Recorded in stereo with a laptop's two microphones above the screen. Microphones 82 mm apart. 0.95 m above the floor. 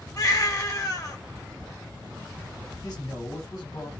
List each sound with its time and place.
0.2 s a baby crying: 40° left (ahead or behind), 0.6 m
2.8 s a man speaking: 40° left (ahead or behind), 0.9 m